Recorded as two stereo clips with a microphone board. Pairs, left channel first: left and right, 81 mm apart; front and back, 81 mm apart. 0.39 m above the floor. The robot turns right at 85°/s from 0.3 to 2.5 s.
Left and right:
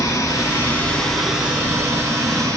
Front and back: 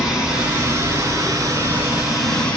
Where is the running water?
100° left, 1.4 m; by 2.6 s 75° right, 1.4 m.